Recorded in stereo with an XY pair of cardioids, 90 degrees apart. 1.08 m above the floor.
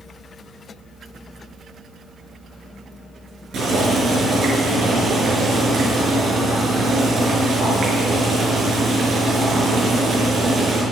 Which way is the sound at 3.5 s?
70° right.